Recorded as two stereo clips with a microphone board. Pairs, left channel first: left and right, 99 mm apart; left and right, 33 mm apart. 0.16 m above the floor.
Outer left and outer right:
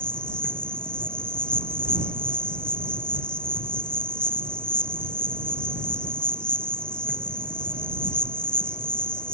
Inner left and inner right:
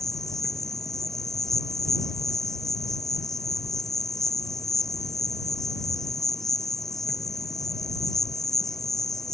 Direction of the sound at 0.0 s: 10° left (ahead or behind).